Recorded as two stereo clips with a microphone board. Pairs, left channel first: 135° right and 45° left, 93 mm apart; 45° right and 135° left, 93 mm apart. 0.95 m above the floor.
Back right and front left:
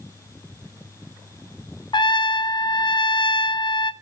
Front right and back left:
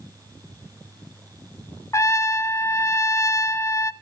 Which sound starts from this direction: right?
A trumpet, at 1.9 s.